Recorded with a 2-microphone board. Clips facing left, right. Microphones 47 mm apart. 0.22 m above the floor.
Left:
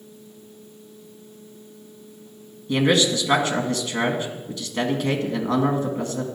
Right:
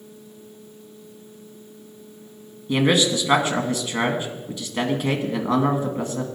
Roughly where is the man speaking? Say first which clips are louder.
Even; centre.